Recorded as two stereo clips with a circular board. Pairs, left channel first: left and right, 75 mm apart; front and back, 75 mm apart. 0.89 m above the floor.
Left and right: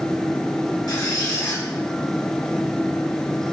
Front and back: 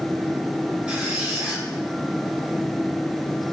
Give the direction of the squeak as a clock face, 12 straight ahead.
8 o'clock.